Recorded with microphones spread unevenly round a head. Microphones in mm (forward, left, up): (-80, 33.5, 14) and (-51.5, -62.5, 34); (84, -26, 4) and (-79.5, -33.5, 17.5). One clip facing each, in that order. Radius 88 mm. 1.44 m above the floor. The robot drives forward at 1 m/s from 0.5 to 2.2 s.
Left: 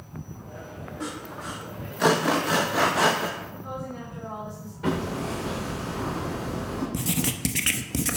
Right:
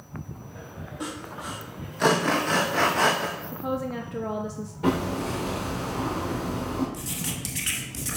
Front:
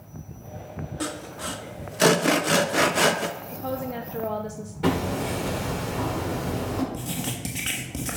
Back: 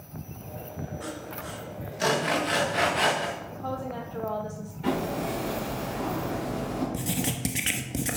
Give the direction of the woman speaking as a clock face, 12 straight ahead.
2 o'clock.